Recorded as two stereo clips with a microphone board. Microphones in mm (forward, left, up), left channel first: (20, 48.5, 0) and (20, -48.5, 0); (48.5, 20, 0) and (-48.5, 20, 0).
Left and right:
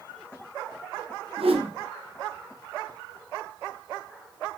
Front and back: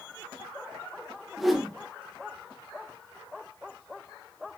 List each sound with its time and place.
1.4 s a whoosh: 95° right, 0.5 m